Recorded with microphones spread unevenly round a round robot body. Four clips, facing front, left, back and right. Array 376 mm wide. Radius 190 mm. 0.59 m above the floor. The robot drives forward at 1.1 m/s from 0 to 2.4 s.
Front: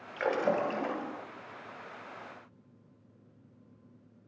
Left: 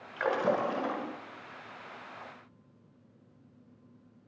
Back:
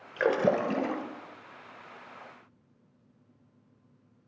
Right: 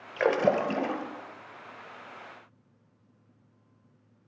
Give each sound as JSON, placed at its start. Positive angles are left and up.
{"t": 0.2, "sound": "a splash", "azimuth_deg": -140, "distance_m": 1.6}